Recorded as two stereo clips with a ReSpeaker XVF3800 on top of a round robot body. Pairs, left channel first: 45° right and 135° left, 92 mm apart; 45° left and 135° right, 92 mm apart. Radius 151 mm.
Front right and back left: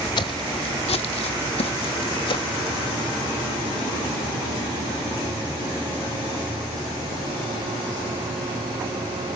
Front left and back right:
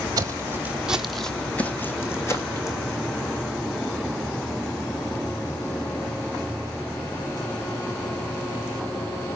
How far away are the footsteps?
About 1.0 m.